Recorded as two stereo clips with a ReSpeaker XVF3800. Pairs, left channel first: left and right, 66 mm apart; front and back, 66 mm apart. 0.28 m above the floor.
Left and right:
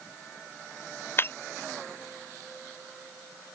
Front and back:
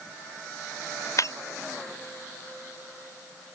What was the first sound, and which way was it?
Breaking glass, 35° left.